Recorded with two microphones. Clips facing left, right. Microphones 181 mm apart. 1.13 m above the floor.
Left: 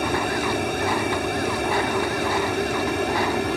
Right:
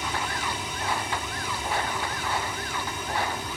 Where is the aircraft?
60° left (ahead or behind); by 3.6 s 65° left (ahead or behind).